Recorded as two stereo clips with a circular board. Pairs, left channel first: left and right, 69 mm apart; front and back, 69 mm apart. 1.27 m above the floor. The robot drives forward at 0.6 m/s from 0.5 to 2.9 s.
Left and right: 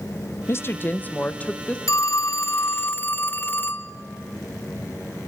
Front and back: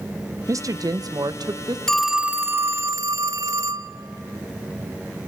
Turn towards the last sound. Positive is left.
turn(degrees=145)